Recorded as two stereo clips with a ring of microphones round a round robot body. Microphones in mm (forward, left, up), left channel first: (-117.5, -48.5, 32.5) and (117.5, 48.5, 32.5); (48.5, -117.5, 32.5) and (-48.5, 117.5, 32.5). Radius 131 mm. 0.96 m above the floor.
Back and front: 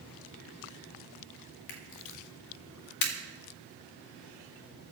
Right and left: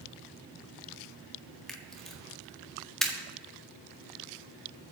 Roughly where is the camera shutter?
Behind right.